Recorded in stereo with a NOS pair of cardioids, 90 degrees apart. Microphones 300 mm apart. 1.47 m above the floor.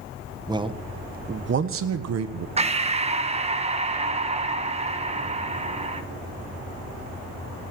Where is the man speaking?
15° right, 1.4 m; by 2.5 s 70° right, 1.4 m.